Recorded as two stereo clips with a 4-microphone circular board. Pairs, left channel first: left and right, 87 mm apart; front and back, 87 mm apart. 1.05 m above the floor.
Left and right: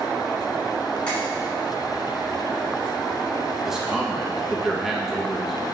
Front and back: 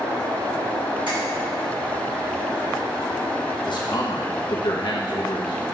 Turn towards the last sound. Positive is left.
turn(degrees=-5)